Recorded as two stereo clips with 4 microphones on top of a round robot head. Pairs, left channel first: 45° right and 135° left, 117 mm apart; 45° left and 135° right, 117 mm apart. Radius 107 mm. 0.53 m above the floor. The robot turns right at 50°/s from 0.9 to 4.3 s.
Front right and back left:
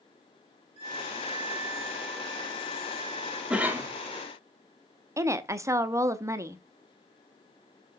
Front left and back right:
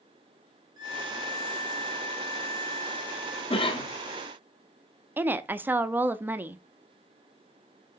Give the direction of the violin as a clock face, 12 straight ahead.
6 o'clock.